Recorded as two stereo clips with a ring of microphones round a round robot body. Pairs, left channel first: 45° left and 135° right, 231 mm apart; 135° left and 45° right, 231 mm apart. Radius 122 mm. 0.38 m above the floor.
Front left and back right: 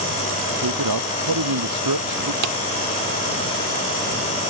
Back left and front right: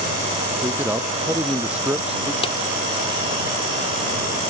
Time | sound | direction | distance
0.6 | a man speaking | 125° right | ?
2.4 | a drawer | 155° right | ?